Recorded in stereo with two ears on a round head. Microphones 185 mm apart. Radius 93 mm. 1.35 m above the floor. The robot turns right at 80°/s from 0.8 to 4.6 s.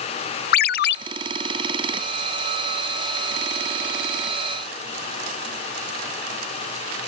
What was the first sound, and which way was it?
A ringtone, 45° left (ahead or behind).